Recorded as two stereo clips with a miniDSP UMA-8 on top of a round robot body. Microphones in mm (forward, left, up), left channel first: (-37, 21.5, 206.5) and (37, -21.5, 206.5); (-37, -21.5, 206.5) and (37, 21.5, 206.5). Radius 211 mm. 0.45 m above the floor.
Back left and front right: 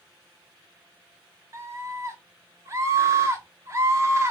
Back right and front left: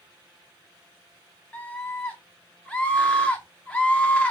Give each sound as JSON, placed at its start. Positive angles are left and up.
{"t": 1.5, "sound": "a scream", "azimuth_deg": -75, "distance_m": 1.0}